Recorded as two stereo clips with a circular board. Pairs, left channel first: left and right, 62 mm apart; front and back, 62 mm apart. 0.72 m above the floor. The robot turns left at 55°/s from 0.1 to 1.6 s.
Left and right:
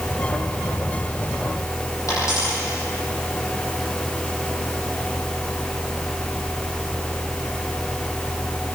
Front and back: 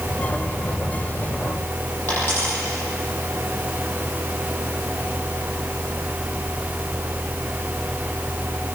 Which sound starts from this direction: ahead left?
A dropped coin, at 2.1 s.